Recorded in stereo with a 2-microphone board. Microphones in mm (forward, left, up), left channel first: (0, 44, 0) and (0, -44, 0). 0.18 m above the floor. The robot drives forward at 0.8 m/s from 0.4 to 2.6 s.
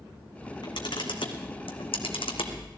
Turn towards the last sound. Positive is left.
turn(degrees=80)